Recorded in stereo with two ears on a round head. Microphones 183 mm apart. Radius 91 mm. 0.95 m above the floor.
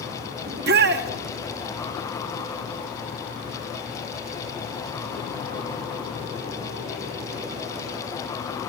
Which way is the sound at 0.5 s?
55° right (ahead or behind).